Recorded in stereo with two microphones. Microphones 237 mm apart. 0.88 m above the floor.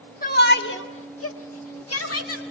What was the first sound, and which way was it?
A shout, 40° left (ahead or behind).